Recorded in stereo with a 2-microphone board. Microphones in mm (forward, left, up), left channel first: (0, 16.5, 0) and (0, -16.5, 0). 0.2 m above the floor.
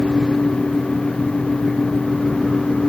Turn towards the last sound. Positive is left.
No sound to turn to.